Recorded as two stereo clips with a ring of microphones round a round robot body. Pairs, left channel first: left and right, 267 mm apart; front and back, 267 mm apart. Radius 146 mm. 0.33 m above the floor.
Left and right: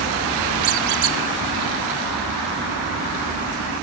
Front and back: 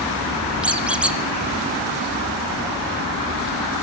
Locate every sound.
0.6 s a squeak: 95° right, 1.1 m